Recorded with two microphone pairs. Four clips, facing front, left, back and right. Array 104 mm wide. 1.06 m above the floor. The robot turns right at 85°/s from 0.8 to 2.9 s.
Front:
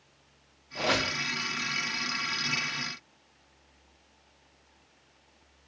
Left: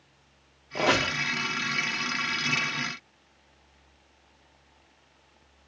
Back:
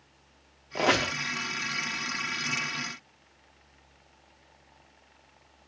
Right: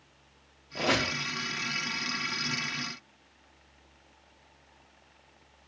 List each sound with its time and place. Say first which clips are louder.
0.8 s a squeak: left 4 dB, back 4 dB; 140° left, 0.5 m; by 1.1 s 165° left, 0.5 m